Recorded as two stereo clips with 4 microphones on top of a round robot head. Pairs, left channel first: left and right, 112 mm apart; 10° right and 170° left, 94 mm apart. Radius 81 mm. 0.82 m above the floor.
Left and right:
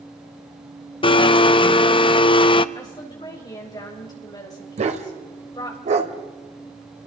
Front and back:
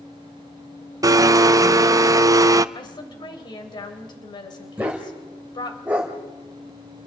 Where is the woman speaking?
30° left, 3.5 m.